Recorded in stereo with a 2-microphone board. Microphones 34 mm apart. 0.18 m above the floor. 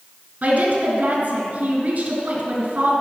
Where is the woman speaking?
45° right (ahead or behind), 2.5 m.